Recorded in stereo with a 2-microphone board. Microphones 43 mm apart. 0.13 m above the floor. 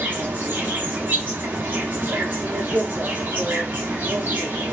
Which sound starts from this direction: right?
An insect, at 0.0 s.